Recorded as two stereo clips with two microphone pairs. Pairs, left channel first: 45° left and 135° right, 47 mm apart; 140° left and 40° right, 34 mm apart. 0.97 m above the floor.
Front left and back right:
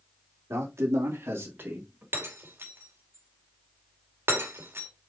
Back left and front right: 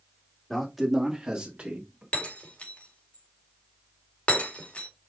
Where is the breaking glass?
170° right, 2 m.